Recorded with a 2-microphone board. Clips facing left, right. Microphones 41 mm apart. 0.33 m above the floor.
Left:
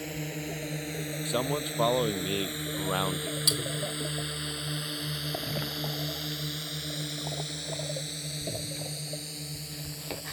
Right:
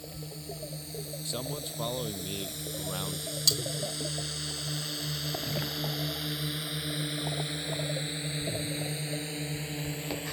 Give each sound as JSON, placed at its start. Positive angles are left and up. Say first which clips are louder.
{"t": 0.0, "sound": "a drone", "louder": "left 7 dB", "side_deg": 60}
{"t": 1.2, "sound": "a man speaking", "louder": "left 8 dB", "side_deg": 35}
{"t": 3.5, "sound": "cutlery clinking", "louder": "right 1 dB", "side_deg": 15}